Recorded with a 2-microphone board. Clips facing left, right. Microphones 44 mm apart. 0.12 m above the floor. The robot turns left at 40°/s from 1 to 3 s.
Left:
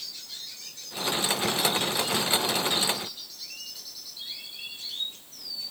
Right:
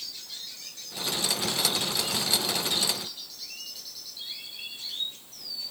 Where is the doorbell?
I don't hear a doorbell.